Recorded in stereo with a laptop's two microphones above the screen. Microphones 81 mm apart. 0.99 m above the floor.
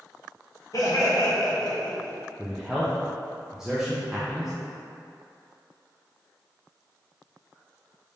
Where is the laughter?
50° left (ahead or behind), 1.1 m; by 2.2 s 60° left (ahead or behind), 1.5 m.